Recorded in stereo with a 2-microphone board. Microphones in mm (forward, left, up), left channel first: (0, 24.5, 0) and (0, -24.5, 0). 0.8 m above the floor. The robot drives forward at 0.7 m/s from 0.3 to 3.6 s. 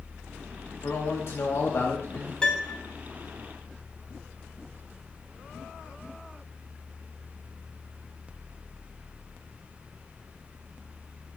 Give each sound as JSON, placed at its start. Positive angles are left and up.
{"t": 0.8, "sound": "a man speaking", "side_deg": 55, "distance_m": 1.8}
{"t": 2.4, "sound": "a piano", "side_deg": 20, "distance_m": 0.9}